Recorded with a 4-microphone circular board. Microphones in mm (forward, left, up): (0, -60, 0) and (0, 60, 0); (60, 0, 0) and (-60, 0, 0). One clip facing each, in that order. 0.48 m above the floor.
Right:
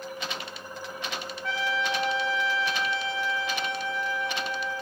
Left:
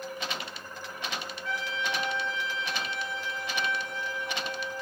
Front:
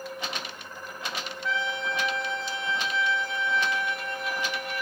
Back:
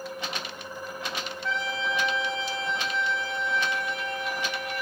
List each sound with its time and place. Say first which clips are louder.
1.4 s a trumpet: right 5 dB, even; 90° right, 1.1 m